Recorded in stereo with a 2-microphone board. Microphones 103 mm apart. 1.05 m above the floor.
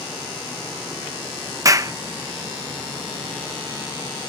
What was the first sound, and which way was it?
A clap, 35° right (ahead or behind).